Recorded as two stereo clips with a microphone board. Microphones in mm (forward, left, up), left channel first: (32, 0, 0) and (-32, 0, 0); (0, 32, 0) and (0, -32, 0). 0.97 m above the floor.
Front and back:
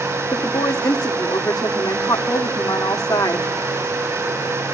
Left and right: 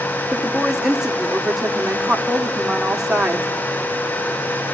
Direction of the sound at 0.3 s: 5° right.